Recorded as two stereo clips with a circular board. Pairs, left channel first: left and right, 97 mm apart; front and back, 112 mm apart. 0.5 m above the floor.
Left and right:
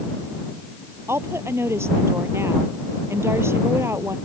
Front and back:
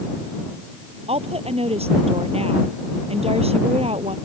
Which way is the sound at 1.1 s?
155° right.